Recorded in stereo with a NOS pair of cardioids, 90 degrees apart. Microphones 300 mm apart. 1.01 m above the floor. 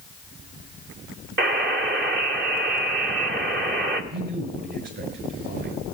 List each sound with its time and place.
1.4 s a buzzer: 40° right, 2.0 m
4.1 s a man speaking: 40° right, 7 m